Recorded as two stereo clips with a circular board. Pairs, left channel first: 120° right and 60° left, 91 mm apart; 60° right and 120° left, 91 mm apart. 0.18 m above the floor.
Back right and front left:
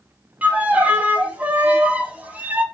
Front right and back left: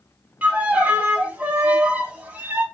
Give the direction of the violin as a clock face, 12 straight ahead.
9 o'clock.